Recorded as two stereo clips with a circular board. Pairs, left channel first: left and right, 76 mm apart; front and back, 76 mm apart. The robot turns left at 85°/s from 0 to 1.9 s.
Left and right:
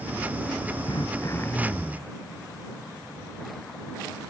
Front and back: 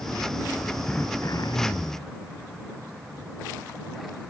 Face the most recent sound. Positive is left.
turn(degrees=-10)